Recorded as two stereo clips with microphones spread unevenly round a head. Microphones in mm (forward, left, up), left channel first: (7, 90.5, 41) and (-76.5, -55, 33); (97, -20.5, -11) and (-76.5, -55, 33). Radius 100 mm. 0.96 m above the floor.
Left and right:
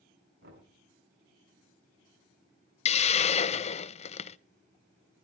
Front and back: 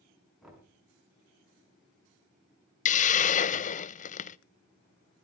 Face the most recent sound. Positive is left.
turn(degrees=15)